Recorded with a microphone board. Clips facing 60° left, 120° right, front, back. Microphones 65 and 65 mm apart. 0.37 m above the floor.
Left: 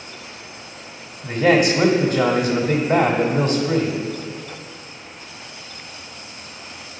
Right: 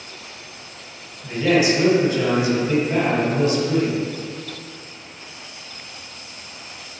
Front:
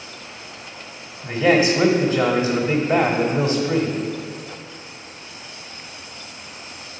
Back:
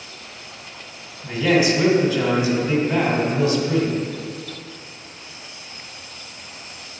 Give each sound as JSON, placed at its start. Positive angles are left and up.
{"t": 1.2, "sound": "a man speaking", "azimuth_deg": 40, "distance_m": 1.4}